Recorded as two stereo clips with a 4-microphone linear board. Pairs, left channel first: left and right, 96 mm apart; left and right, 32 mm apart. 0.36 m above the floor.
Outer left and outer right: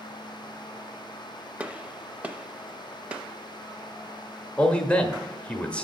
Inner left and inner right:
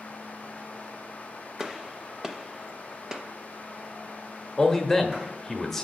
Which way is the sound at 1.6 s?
15° right (ahead or behind).